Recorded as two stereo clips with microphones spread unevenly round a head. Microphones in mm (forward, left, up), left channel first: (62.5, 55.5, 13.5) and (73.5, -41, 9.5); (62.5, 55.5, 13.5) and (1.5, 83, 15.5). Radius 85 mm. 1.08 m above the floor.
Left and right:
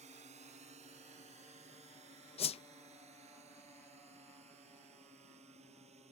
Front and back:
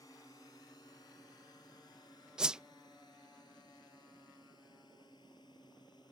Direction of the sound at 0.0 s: 95° right.